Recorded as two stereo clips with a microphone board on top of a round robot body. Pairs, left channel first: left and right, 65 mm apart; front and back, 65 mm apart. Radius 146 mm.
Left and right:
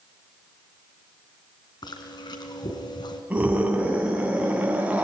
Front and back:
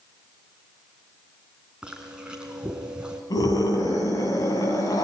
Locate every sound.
1.8 s chewing: 100° left, 2.5 m
3.3 s a scream: 20° right, 9 m